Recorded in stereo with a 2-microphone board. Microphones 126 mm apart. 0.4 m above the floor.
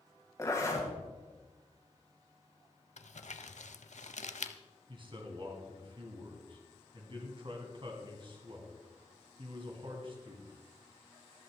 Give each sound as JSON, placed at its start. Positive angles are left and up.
{"t": 0.4, "sound": "a zipper", "side_deg": 25, "distance_m": 2.5}
{"t": 3.0, "sound": "crumpling", "side_deg": 70, "distance_m": 0.7}
{"t": 4.9, "sound": "a man speaking", "side_deg": -40, "distance_m": 2.5}